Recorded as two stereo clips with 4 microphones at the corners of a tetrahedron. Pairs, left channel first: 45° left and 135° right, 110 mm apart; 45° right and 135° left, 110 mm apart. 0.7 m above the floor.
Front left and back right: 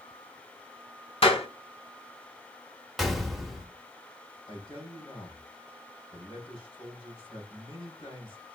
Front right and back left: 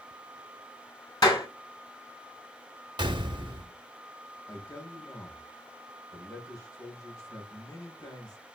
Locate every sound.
1.2 s a clap: 10° left, 2.5 m
3.0 s a gunshot: 135° left, 0.9 m
4.5 s a man speaking: 10° left, 2.5 m